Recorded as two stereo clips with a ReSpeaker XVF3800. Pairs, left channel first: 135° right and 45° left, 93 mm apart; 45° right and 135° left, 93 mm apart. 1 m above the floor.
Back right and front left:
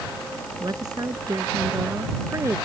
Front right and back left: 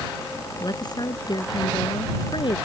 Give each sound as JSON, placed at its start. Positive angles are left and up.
{"t": 0.6, "sound": "a woman speaking", "azimuth_deg": 0}